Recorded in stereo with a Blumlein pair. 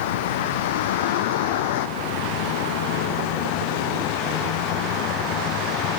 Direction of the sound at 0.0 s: 55° left.